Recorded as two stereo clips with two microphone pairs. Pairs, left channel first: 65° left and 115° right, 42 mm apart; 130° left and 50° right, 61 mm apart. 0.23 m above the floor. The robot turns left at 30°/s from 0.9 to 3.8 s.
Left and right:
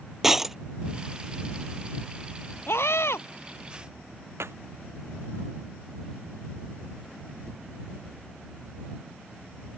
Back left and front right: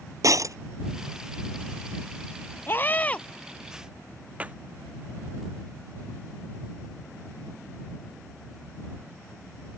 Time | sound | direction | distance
0.2 | breaking glass | 30° right | ?
2.7 | a scream | 75° left | ?
4.4 | a clap | 120° right | ?